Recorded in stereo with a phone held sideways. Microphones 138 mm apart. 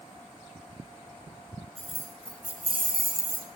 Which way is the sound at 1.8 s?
60° left (ahead or behind).